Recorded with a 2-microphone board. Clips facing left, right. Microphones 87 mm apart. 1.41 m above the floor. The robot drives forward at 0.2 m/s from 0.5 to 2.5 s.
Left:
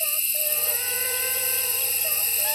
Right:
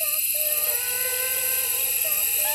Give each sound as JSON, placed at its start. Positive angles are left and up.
{"t": 0.0, "sound": "an insect", "side_deg": 5, "distance_m": 1.0}